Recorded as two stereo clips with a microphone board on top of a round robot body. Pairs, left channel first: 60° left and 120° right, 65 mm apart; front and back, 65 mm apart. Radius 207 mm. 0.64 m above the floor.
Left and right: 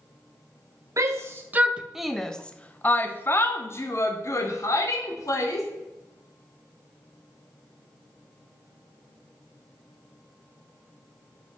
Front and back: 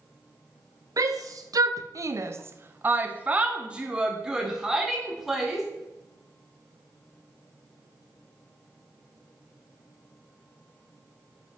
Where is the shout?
155° right, 1.0 m; by 5.7 s 95° left, 3 m.